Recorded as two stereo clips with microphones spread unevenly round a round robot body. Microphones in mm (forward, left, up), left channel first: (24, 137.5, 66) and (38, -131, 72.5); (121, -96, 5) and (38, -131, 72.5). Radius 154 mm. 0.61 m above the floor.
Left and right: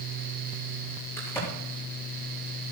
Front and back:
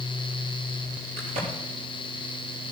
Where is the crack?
175° left, 7 m.